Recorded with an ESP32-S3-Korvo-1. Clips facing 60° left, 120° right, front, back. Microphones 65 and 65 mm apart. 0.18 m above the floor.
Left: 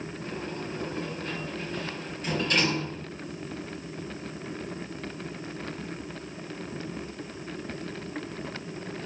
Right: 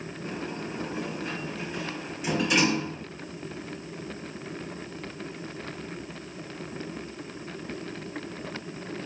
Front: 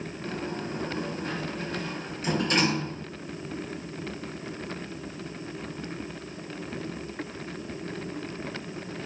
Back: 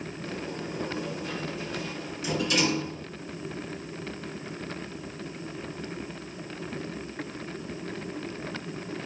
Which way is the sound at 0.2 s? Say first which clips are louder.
Right 2 dB, front 3 dB; 40° right.